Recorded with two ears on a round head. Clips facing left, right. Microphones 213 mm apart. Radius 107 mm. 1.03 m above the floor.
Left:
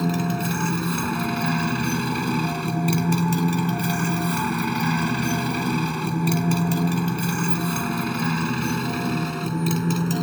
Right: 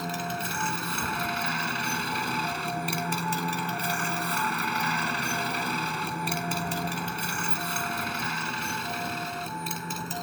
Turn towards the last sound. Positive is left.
turn(degrees=60)  # may be behind; listen again after turning